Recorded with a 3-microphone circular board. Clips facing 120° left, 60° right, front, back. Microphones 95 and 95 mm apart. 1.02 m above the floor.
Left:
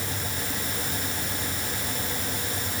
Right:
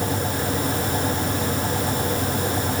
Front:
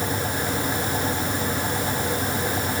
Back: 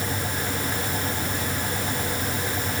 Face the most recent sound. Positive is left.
No sound to turn to.